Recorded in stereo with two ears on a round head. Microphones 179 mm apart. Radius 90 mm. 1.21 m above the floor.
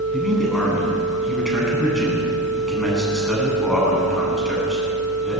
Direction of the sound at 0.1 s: Centre (ahead or behind).